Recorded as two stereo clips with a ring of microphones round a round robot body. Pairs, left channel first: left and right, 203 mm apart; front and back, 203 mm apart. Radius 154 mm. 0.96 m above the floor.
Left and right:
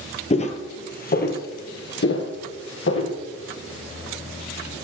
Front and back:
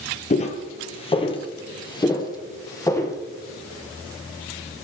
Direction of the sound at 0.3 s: 45° left.